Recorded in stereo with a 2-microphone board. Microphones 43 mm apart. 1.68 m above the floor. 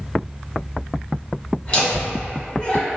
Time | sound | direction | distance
1.6 | laughter | 20° left (ahead or behind) | 1.6 m